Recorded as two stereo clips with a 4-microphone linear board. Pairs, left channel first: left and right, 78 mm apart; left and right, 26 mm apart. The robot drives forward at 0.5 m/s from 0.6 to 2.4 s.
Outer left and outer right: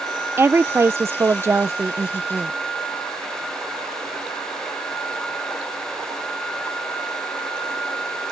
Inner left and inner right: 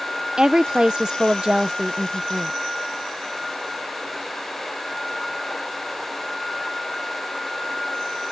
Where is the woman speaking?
30° right (ahead or behind); by 2.5 s 20° right (ahead or behind).